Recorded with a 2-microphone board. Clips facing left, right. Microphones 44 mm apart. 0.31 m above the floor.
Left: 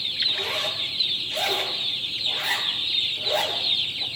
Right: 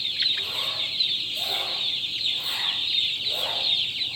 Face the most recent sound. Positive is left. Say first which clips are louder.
# left 2 dB
turn(degrees=60)  # may be behind; listen again after turning